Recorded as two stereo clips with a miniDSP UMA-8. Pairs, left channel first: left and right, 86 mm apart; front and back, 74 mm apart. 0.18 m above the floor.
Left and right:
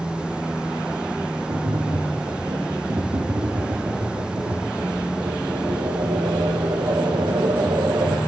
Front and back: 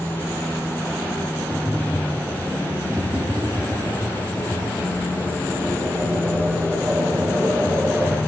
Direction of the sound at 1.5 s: 110° right.